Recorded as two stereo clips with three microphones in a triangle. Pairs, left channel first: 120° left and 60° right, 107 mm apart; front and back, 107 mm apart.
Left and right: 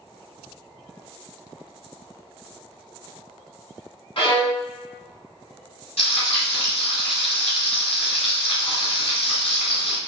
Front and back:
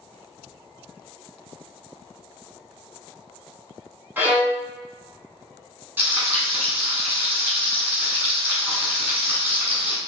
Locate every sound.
4.2 s a violin: 110° left, 0.9 m
6.0 s frying: 110° left, 1.3 m